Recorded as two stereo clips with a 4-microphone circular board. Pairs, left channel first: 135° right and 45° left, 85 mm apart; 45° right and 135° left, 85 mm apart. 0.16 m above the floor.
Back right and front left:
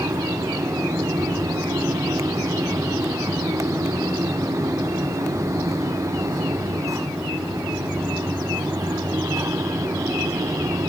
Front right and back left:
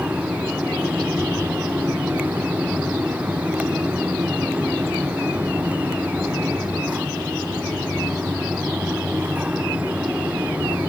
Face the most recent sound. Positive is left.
No sound to turn to.